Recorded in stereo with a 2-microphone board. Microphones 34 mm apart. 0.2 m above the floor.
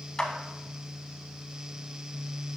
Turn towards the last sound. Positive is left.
turn(degrees=25)  # may be behind; listen again after turning